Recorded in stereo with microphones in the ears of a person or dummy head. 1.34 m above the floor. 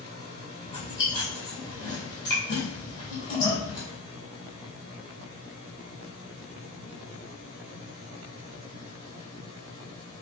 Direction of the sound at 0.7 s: 25° left (ahead or behind).